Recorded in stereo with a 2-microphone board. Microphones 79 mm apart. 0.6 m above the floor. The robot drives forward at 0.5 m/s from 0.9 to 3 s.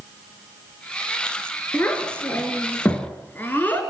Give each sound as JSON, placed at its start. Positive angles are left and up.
{"t": 1.7, "sound": "a child speaking", "side_deg": 20, "distance_m": 5.0}